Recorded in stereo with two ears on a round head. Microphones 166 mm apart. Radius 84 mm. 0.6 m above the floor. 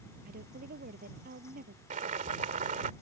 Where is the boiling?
40° right (ahead or behind).